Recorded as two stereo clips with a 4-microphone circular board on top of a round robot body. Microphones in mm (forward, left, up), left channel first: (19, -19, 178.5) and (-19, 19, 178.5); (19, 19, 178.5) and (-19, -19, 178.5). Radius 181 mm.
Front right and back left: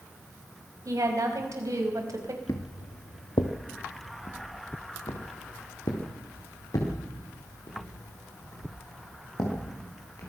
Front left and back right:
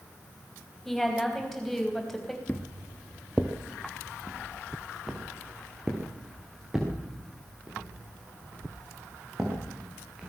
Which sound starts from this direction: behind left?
A woman speaking, at 0.8 s.